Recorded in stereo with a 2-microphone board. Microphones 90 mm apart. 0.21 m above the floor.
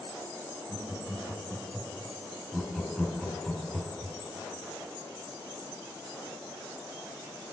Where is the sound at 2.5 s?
5° left (ahead or behind), 1.2 m.